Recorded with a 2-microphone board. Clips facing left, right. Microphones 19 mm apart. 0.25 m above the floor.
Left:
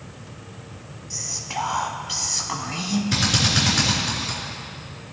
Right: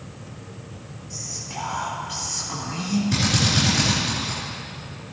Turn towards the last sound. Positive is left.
turn(degrees=20)  # may be behind; listen again after turning